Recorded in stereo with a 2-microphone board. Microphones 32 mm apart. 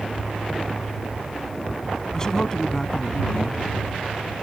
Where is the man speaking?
15° left (ahead or behind).